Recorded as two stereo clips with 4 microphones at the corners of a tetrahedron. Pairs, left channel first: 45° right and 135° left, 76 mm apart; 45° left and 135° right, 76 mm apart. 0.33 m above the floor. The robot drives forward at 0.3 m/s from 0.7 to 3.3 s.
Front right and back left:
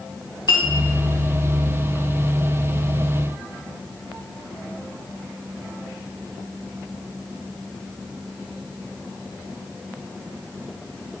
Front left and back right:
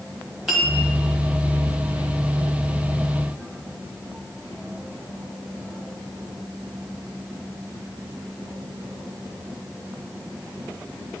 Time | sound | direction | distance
0.5 | a clink | 50° right | 1.5 m